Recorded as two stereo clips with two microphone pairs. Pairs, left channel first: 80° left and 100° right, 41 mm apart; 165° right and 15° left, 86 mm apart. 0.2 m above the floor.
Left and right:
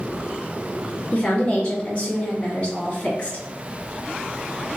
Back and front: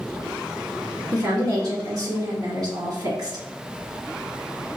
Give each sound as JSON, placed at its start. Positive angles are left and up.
{"t": 1.1, "sound": "a woman speaking", "azimuth_deg": 30, "distance_m": 1.6}